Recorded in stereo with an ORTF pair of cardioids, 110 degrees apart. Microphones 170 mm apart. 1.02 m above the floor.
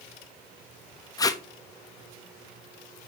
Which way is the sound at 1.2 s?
20° left.